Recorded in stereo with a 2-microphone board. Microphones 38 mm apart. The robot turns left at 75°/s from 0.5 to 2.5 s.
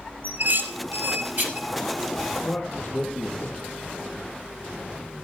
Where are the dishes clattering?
55° right (ahead or behind), 2.5 m; by 1.7 s 30° right (ahead or behind), 2.5 m.